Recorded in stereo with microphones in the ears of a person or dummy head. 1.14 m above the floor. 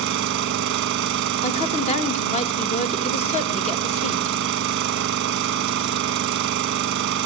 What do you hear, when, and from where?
0.0 s an engine running: 60° right (ahead or behind), 1.1 m
1.4 s a woman speaking: 35° left (ahead or behind), 1.9 m